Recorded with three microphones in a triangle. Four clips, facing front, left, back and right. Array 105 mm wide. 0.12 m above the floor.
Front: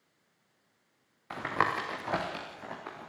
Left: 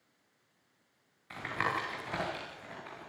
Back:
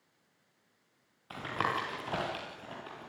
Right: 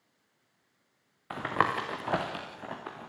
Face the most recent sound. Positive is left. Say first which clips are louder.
# right 6 dB, front 3 dB
turn(degrees=-70)